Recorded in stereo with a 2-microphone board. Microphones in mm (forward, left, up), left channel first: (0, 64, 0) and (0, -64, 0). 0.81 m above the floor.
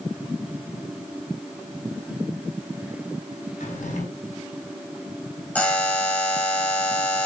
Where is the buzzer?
10° left (ahead or behind), 3 m.